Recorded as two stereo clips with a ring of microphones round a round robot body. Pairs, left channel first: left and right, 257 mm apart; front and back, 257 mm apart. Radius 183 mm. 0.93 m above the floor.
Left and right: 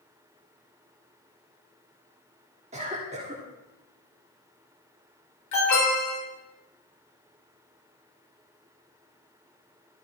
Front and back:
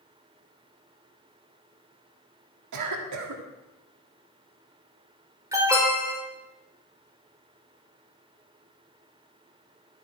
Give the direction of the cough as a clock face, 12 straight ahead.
5 o'clock.